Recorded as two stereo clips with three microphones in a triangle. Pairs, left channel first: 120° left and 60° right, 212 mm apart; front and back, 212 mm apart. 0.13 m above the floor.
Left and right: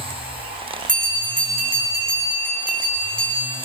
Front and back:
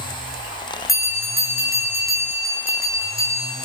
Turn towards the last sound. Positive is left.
turn(degrees=-10)